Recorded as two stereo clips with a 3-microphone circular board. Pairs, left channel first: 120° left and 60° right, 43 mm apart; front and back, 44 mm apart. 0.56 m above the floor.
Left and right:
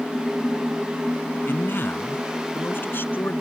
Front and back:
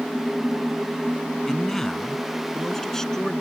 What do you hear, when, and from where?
1.5 s a man speaking: 80° left; by 3.4 s 75° left